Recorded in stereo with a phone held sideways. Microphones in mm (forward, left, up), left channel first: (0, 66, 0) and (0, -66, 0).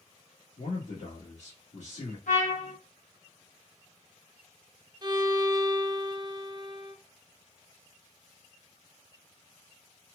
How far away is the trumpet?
About 1.3 m.